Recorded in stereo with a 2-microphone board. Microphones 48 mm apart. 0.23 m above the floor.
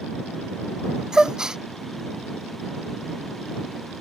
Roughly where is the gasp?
Centre.